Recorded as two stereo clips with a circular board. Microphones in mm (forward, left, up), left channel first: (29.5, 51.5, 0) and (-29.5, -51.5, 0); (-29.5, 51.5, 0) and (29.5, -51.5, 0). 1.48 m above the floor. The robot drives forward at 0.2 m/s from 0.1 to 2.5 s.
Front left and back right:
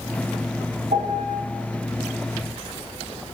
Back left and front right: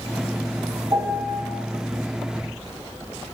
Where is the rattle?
I don't hear a rattle.